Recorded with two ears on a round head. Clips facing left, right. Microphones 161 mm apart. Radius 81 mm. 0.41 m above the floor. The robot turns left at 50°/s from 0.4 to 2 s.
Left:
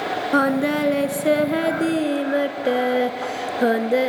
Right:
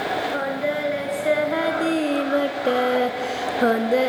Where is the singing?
90° left, 0.9 m; by 4.1 s 10° left, 0.9 m.